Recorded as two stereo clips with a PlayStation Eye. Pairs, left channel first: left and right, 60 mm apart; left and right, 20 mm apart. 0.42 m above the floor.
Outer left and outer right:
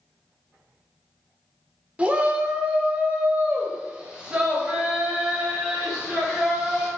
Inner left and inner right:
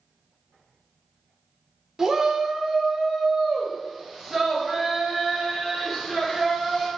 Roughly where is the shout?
Right.